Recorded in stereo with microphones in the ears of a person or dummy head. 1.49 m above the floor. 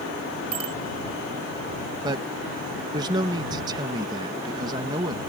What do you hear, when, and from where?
0.5 s a bicycle bell: 30° right (ahead or behind)
2.0 s a man speaking: 25° right (ahead or behind)